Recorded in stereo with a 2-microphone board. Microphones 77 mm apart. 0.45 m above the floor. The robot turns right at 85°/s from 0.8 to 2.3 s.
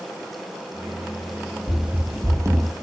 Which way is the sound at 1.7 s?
5° left (ahead or behind).